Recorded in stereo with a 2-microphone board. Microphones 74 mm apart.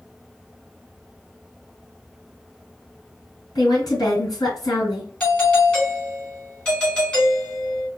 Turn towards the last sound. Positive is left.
turn(degrees=15)  # may be behind; listen again after turning